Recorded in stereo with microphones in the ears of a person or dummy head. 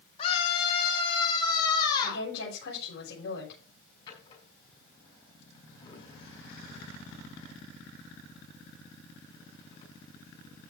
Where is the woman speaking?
65° left (ahead or behind), 8 m.